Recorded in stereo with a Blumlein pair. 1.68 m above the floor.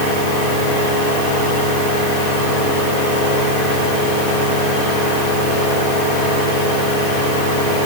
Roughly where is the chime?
I don't hear a chime.